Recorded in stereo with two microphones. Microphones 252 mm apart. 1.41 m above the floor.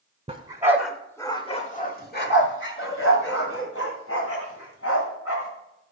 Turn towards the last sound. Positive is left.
turn(degrees=70)  # may be behind; listen again after turning